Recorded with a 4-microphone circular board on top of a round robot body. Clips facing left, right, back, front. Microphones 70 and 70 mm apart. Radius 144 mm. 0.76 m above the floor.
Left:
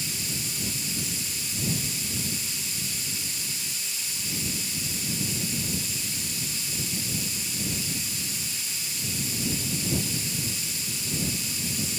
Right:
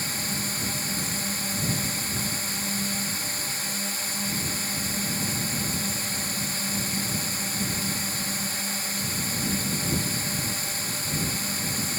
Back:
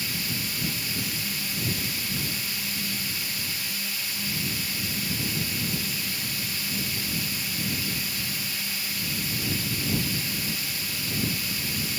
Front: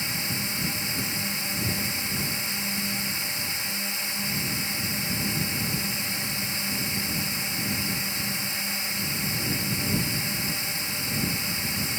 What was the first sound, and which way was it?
A drone, 60° right.